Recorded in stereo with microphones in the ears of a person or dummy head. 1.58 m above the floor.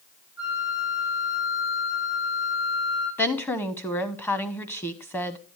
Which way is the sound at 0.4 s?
50° left (ahead or behind).